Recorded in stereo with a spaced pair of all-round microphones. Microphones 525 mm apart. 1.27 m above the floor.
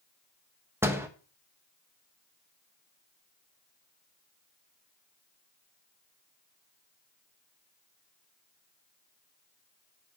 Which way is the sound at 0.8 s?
5° right (ahead or behind).